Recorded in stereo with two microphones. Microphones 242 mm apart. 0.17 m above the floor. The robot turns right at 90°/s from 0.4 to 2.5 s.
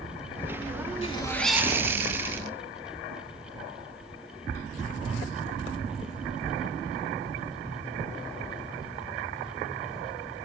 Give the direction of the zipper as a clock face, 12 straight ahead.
7 o'clock.